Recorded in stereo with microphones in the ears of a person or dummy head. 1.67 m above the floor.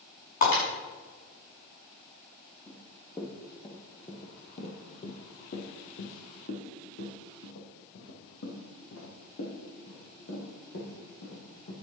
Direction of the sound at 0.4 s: 50° left (ahead or behind).